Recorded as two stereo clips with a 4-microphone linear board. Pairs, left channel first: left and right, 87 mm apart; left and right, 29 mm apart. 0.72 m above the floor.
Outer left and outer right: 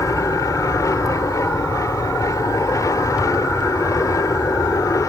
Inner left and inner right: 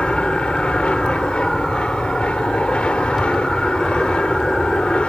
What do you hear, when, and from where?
0.0 s an aircraft: 40° left (ahead or behind)